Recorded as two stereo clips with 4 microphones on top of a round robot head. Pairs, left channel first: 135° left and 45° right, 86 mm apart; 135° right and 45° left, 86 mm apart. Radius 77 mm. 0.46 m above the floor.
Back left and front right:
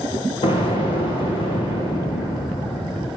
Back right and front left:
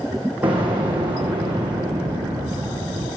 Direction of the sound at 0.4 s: 120° left.